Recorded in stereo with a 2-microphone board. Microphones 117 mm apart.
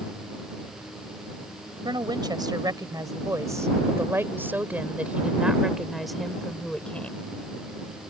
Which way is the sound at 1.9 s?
40° right (ahead or behind).